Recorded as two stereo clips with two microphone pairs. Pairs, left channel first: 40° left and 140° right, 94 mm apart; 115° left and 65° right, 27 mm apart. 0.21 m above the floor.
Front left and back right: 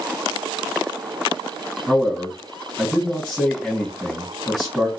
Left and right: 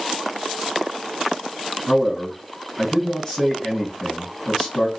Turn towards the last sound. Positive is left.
turn(degrees=130)